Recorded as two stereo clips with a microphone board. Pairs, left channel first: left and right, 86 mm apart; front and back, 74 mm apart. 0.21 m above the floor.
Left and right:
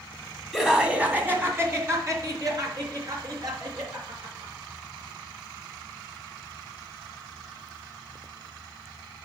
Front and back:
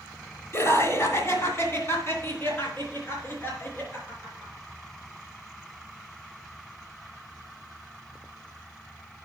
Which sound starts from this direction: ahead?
Laughter, at 0.5 s.